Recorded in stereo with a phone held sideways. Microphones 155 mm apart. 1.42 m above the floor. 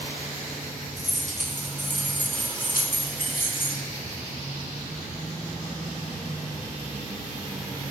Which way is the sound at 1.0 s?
45° left (ahead or behind).